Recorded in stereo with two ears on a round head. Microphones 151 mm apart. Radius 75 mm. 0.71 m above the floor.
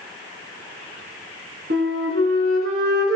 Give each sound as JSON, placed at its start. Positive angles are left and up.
{"t": 1.7, "sound": "a flute", "side_deg": -70, "distance_m": 3.0}